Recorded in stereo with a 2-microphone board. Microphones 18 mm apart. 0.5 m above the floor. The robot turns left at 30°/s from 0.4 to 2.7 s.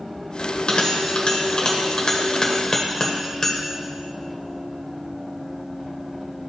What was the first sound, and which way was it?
A bell, 65° left (ahead or behind).